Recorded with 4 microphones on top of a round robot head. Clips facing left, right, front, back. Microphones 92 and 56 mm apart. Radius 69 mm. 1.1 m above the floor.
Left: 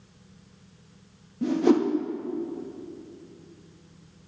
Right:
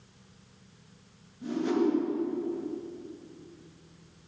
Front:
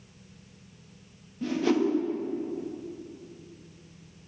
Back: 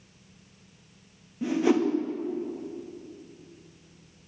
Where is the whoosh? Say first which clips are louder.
Left 6 dB, back 2 dB; 105° left, 1.9 m.